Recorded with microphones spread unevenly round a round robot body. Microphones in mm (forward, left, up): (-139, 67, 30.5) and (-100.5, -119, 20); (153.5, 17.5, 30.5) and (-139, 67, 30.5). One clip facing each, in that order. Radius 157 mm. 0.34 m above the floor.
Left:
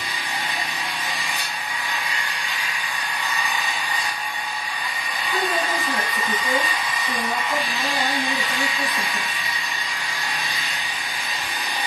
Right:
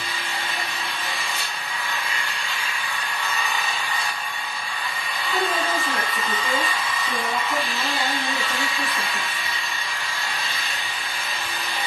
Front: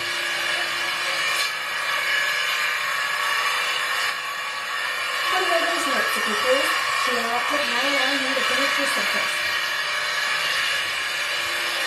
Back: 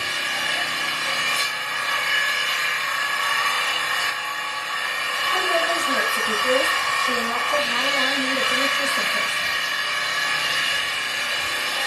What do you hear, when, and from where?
0.0 s an engine running: straight behind, 0.9 m
5.3 s a woman speaking: 20° left, 1.4 m